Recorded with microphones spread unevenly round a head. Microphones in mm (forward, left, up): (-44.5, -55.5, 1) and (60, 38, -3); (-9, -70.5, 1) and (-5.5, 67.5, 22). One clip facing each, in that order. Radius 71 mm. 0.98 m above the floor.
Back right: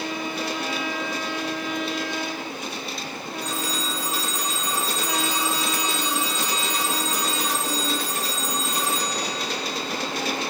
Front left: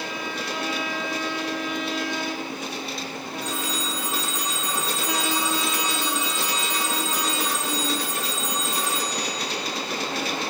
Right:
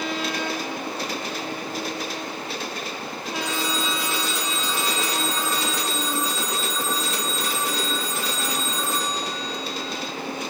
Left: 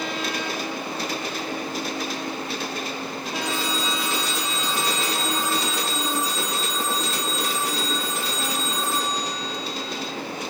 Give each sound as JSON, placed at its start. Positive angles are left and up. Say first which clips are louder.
{"t": 3.4, "sound": "a phone ringing", "louder": "back right 1 dB, even", "azimuth_deg": -80, "distance_m": 4.0}